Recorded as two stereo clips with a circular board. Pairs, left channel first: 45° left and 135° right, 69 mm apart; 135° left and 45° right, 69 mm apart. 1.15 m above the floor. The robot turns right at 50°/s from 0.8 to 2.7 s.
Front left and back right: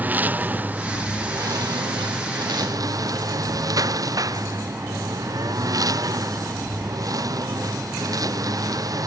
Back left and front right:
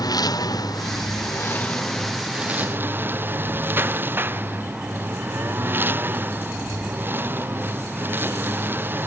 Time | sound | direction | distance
0.0 | a lawn mower | 160° left | ?